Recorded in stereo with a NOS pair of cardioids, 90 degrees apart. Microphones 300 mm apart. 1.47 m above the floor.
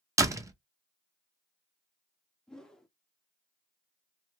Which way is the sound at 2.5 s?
Straight ahead.